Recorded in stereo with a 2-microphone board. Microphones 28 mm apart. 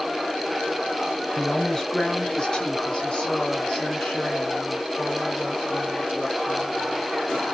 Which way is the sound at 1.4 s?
15° left (ahead or behind).